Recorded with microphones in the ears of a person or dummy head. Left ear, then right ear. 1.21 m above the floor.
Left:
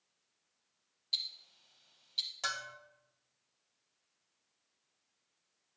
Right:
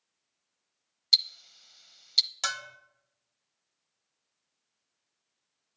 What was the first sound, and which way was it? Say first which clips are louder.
Ticking: right 13 dB; 70° right (ahead or behind).